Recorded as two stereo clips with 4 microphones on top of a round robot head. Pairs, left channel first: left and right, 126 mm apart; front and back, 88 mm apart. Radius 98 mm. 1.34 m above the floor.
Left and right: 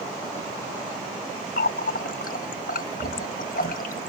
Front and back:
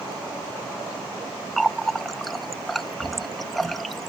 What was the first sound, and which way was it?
A running tap, 90° left.